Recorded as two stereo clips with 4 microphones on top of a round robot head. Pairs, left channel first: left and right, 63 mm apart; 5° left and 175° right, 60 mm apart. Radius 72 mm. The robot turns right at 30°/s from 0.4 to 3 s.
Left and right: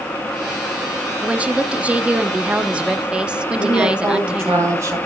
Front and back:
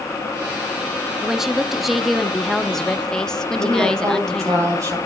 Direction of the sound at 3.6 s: 135° right.